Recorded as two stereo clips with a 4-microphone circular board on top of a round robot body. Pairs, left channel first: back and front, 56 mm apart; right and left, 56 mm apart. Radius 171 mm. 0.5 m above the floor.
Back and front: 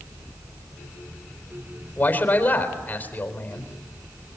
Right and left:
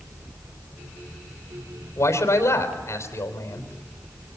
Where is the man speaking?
115° right, 4 m.